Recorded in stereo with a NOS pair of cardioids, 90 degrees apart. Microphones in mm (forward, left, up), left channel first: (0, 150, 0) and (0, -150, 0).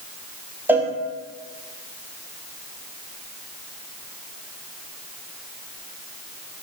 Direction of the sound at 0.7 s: 5° right.